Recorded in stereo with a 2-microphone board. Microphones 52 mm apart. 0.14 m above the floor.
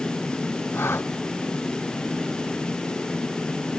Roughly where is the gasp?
Left.